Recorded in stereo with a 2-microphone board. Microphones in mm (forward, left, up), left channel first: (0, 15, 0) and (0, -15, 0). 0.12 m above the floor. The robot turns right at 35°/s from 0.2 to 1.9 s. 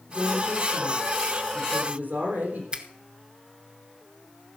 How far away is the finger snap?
About 1.1 m.